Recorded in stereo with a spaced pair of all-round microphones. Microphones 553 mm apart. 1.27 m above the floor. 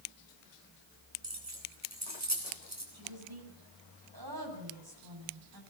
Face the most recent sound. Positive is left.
turn(degrees=-40)  # may be behind; listen again after turning